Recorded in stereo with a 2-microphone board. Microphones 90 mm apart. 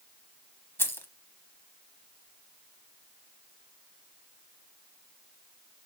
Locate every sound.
0.8 s keys jangling: 25° left (ahead or behind), 1.0 m